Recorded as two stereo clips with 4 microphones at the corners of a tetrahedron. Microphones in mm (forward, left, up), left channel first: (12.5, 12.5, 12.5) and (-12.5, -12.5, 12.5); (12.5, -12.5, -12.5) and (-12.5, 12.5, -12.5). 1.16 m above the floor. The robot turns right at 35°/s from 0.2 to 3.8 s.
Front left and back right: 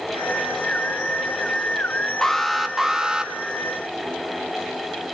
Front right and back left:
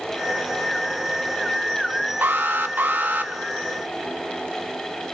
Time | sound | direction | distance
2.2 | an alarm | 125° left | 1.5 m